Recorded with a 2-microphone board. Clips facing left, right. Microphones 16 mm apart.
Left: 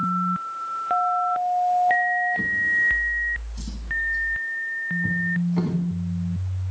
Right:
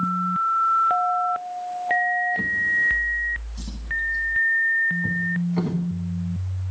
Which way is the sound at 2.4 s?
10° right (ahead or behind).